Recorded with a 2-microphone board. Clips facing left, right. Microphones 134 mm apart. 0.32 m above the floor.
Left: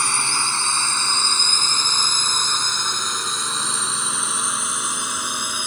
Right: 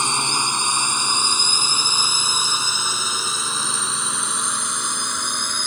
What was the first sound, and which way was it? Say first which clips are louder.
A drone: right 2 dB; 20° right (ahead or behind).